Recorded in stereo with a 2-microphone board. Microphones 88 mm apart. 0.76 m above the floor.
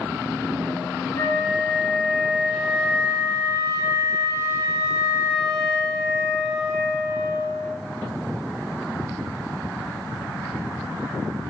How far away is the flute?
About 0.7 m.